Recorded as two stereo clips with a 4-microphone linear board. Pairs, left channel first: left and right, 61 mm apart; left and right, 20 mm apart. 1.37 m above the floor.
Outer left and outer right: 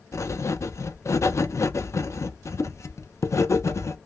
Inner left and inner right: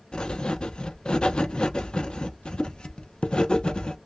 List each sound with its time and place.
0.1 s writing: 55° left (ahead or behind), 0.5 m